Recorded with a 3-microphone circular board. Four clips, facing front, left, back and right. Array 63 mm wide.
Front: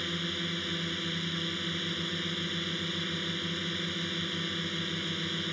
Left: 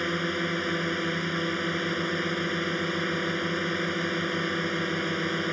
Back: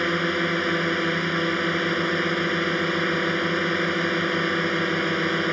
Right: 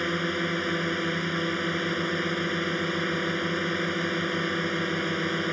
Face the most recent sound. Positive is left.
turn(degrees=180)